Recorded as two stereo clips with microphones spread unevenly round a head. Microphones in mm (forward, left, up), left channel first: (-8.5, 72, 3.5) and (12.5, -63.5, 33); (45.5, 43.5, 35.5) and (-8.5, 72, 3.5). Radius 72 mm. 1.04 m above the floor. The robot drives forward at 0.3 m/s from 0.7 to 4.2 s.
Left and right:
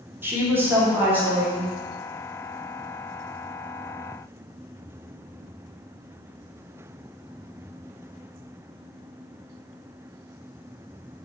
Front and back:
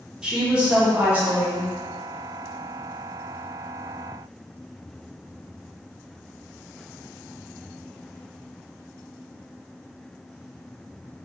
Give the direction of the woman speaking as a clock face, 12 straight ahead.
5 o'clock.